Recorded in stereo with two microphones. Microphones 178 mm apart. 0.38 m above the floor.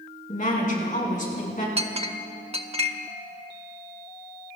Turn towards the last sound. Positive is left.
turn(degrees=-35)  # may be behind; listen again after turning